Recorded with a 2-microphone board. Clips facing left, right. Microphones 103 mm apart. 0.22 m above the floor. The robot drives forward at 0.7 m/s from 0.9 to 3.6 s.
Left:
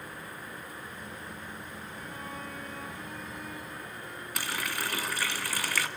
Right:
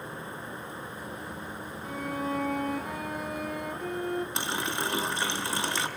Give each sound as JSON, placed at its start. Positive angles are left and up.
{"t": 1.8, "sound": "a violin", "side_deg": -85, "distance_m": 3.0}
{"t": 4.3, "sound": "a running tap", "side_deg": -25, "distance_m": 1.5}